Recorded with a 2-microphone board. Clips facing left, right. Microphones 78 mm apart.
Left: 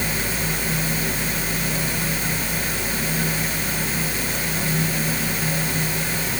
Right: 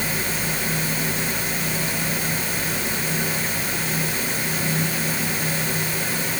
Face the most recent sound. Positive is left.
No sound to turn to.